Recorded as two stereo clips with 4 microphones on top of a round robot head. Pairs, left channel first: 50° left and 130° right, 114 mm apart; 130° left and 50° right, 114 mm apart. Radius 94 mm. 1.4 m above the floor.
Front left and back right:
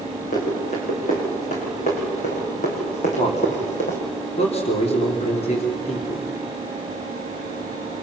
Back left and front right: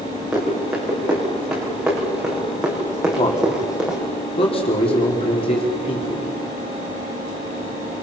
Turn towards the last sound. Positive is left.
turn(degrees=85)